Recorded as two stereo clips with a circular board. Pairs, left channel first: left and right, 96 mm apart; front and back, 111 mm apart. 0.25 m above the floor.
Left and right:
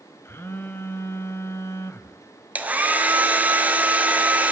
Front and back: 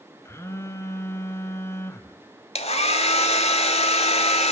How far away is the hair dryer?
About 0.7 m.